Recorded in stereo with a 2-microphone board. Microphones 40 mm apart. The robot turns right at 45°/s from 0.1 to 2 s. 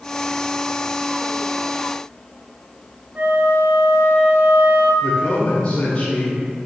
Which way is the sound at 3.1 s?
45° right (ahead or behind).